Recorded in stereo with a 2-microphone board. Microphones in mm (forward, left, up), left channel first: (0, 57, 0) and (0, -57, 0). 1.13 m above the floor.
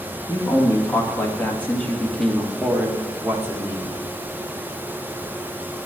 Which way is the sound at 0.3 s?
30° left (ahead or behind).